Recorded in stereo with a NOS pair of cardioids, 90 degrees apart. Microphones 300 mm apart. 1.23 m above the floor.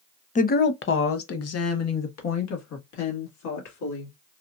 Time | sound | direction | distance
0.3 | a woman speaking | 25° left | 0.6 m